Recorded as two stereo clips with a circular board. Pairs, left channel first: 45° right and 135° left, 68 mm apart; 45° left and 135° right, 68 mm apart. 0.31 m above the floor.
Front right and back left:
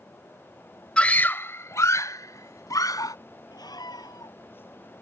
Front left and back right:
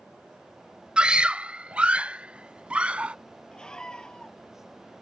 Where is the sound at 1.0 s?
90° right; by 3.1 s 65° right.